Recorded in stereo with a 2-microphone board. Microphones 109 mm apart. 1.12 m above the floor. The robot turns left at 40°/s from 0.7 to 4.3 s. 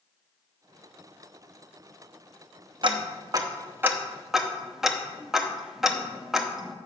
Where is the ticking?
50° right (ahead or behind), 0.7 m; by 6.8 s 5° right (ahead or behind), 0.7 m.